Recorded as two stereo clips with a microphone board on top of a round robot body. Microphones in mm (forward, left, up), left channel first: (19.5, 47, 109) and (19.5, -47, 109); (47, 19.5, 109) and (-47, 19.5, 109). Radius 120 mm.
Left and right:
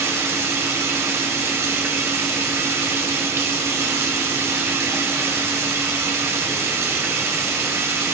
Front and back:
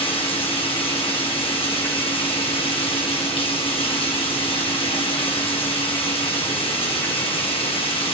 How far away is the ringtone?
I don't hear a ringtone.